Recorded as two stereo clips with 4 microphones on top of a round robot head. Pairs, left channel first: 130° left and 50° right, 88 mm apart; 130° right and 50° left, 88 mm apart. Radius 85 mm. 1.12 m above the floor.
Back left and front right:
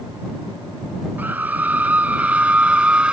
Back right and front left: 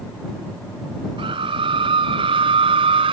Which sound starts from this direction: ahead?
A scream, at 1.2 s.